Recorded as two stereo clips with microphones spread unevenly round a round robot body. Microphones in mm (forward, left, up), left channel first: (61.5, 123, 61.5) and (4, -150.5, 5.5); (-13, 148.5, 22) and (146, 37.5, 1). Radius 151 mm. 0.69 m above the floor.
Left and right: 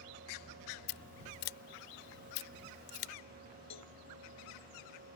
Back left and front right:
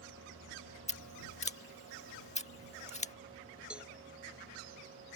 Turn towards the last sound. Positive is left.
turn(degrees=50)